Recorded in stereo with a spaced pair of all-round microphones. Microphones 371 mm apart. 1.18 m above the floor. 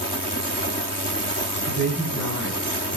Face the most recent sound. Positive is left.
turn(degrees=-50)  # may be behind; listen again after turning